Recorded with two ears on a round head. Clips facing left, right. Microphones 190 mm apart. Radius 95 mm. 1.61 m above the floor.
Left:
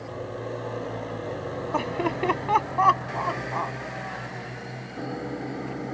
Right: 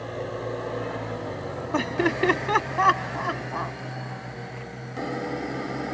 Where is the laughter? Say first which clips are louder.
Right 4 dB; 20° right (ahead or behind); by 3.7 s 15° right (ahead or behind).